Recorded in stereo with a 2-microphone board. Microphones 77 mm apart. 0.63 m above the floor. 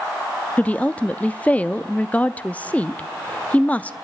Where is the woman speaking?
20° left (ahead or behind), 0.5 m.